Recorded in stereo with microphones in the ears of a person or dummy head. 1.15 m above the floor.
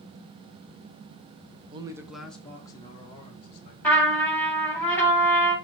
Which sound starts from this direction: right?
A man speaking, at 1.7 s.